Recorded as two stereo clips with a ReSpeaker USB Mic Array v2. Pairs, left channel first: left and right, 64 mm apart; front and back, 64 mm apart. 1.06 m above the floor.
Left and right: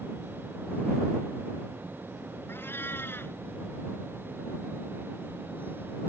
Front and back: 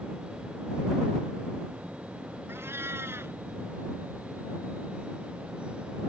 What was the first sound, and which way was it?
A cat meowing, 140° left.